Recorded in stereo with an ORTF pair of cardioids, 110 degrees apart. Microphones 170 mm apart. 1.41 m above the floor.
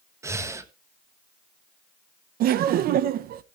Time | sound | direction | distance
0.2 | breathing | 15° right | 1.2 m
2.4 | laughter | 65° right | 0.9 m